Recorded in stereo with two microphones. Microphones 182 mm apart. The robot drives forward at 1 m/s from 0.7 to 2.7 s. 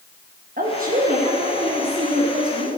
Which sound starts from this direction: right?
A woman speaking, at 0.6 s.